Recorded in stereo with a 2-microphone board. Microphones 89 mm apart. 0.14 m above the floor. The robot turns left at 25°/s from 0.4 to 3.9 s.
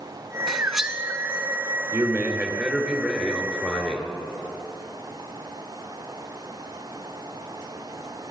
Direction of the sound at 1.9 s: 145° right.